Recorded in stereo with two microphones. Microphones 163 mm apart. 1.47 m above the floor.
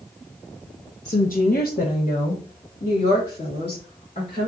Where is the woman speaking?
45° left (ahead or behind), 0.7 m; by 4.5 s 40° left (ahead or behind), 3 m.